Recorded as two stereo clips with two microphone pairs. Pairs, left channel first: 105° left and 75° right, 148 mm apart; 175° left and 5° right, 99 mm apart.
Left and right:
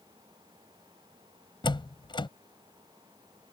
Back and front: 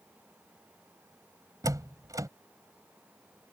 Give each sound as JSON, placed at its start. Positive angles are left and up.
{"t": 1.6, "sound": "a door slam", "azimuth_deg": 45}